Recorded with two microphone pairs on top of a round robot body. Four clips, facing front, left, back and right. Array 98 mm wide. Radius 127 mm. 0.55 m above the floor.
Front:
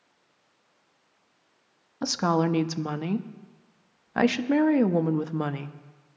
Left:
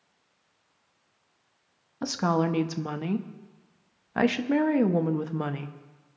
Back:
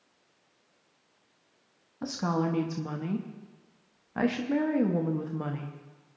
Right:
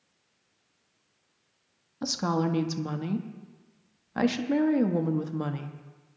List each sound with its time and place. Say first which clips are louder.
2.0 s a woman speaking: left 2 dB, front 5 dB; 10° left, 0.8 m